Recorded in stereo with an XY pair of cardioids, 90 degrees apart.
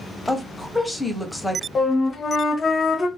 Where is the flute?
45° left, 0.9 m.